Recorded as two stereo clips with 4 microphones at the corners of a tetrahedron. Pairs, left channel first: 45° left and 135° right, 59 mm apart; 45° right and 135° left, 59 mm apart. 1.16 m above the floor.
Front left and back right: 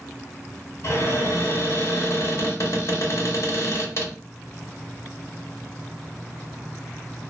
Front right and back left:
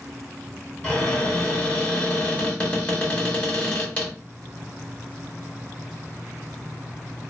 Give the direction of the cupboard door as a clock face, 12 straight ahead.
11 o'clock.